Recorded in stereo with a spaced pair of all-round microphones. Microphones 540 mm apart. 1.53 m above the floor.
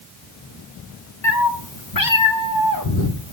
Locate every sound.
1.2 s a cat meowing: 30° left (ahead or behind), 1.2 m